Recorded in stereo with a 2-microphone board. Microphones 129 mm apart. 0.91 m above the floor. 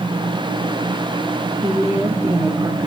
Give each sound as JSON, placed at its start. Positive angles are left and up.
{"t": 1.6, "sound": "a woman speaking", "side_deg": -15, "distance_m": 2.0}